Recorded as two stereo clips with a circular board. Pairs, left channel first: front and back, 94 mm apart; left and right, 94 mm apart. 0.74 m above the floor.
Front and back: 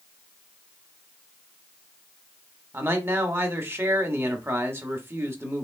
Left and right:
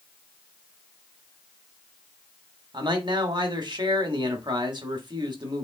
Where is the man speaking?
115° right, 1.1 m.